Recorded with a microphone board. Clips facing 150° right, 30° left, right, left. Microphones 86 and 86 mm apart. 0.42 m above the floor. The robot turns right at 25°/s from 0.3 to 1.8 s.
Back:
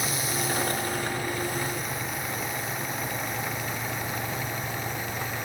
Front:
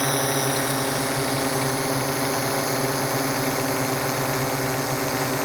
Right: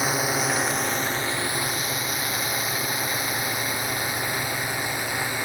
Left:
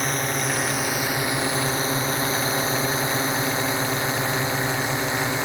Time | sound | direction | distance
0.0 | a drone | 5° right | ?